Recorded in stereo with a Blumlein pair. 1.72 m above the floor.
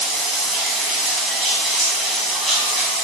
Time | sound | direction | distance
0.0 | running water | 10° right | 0.9 m